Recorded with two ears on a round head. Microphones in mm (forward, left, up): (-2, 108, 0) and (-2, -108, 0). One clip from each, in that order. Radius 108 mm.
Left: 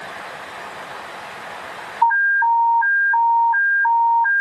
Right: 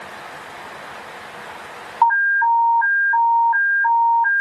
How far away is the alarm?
About 2.0 m.